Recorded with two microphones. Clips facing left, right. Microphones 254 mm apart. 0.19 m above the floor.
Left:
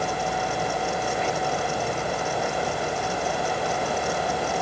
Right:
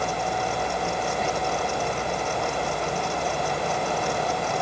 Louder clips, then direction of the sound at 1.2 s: Left 1 dB; 45° right (ahead or behind).